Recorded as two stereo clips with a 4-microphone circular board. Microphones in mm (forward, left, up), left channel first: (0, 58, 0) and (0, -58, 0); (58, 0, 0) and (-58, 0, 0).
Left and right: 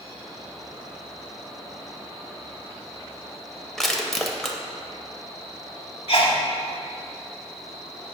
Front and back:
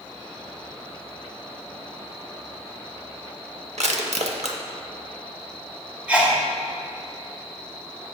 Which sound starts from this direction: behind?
Crushing, at 3.8 s.